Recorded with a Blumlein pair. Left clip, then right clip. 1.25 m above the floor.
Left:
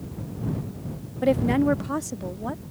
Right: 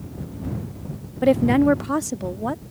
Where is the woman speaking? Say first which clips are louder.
Right 4 dB; 10° right; by 2.6 s 15° right.